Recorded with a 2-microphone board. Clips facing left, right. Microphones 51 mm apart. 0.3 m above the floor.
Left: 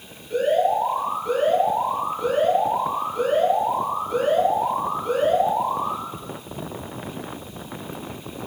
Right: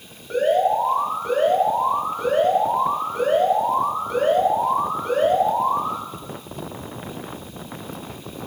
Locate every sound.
0.3 s an alarm: 65° right (ahead or behind), 3.5 m